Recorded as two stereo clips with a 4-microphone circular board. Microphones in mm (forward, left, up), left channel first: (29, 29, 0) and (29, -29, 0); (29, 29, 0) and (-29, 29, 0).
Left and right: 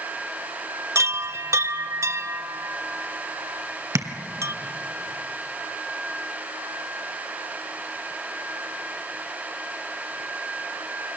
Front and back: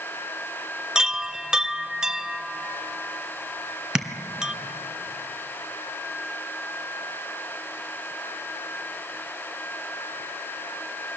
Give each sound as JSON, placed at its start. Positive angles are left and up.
{"t": 0.9, "sound": "a chime", "azimuth_deg": -105, "distance_m": 0.6}
{"t": 4.0, "sound": "tapping", "azimuth_deg": -100, "distance_m": 1.6}